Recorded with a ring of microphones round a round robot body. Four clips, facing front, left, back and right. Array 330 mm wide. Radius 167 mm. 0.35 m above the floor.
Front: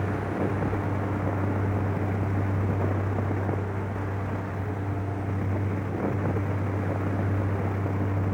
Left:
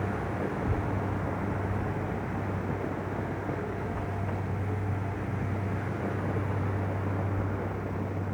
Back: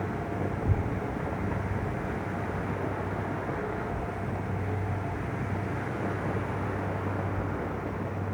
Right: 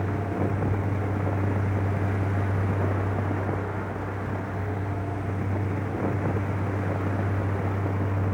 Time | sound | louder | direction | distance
0.5 | a child speaking | right 3 dB, front 3 dB | 160° left | ?